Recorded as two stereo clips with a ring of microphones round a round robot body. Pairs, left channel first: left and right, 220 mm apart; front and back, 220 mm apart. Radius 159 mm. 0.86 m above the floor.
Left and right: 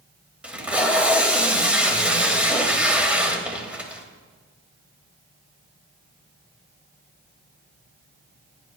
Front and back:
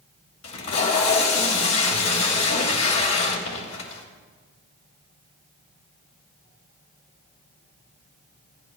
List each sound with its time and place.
0.4 s tape being pulled: 5° right, 2.5 m